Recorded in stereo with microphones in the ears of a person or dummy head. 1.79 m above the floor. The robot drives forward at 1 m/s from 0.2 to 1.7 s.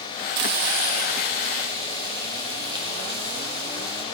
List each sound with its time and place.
0.4 s frying: 55° right (ahead or behind), 0.6 m; by 4.0 s 25° right (ahead or behind), 1.2 m